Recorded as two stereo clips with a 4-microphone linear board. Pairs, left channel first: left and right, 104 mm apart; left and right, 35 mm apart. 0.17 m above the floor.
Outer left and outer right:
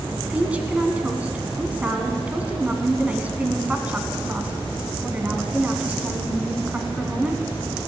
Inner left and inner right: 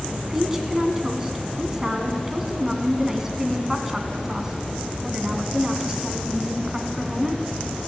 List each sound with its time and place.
0.3 s a woman speaking: 15° right (ahead or behind), 1.7 m